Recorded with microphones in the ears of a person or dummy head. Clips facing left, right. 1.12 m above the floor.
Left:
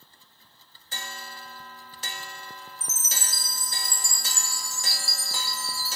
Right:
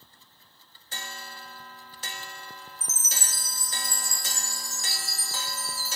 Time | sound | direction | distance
2.8 | a chime | 10° left (ahead or behind) | 0.7 m